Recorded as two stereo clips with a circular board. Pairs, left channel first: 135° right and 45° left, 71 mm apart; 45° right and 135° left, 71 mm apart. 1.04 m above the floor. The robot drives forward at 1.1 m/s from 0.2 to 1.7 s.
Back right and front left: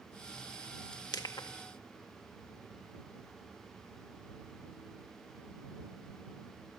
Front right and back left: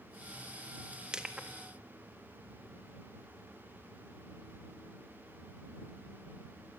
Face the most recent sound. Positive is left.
turn(degrees=-155)